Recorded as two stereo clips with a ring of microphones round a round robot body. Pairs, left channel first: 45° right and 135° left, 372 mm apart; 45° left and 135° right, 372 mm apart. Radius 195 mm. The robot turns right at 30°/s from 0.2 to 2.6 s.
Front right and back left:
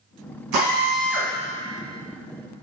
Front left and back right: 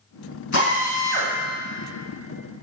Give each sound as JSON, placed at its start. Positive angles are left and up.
{"t": 0.5, "sound": "a drill", "azimuth_deg": 100, "distance_m": 3.0}